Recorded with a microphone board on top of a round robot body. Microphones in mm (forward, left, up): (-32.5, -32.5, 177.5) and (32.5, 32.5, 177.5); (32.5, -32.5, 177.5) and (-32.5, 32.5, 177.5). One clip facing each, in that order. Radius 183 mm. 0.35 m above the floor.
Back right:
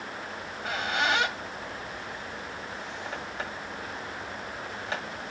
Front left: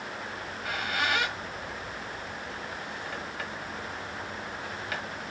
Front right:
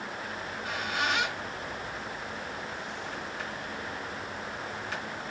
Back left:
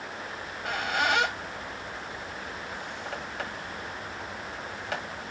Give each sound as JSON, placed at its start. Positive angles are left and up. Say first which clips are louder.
{"t": 0.3, "sound": "a squeak", "louder": "back right 2 dB, back left 4 dB", "azimuth_deg": 165, "distance_m": 1.5}